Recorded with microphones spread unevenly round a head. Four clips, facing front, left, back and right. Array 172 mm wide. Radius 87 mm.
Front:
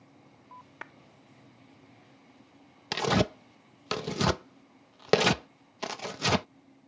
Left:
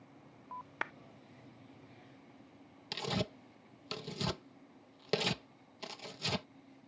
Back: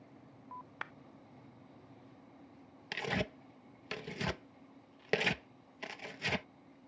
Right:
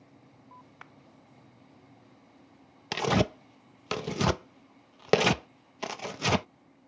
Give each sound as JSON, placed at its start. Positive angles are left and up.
{"t": 0.8, "sound": "a clap", "azimuth_deg": 80}
{"t": 2.9, "sound": "tearing paper", "azimuth_deg": -45}